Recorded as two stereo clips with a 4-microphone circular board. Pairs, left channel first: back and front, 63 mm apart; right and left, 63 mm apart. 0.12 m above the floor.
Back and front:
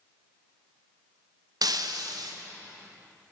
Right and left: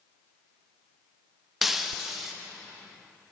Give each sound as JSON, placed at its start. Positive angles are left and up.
{"t": 1.6, "sound": "breaking glass", "azimuth_deg": 5, "distance_m": 3.0}